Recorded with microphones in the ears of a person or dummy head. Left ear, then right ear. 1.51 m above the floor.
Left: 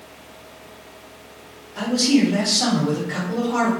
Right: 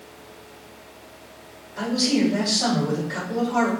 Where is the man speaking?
65° left (ahead or behind), 1.7 m.